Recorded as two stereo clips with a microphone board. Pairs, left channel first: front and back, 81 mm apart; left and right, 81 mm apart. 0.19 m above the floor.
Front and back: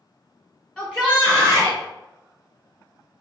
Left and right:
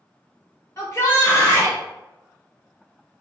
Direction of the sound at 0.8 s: 85° left.